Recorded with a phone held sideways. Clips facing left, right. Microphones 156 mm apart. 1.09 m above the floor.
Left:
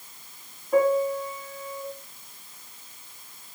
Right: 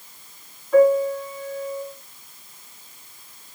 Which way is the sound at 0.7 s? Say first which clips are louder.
Right 6 dB; 25° left (ahead or behind).